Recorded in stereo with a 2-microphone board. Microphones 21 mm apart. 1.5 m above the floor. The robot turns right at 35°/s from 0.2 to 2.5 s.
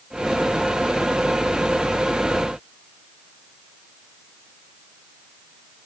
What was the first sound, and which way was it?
Only background noise.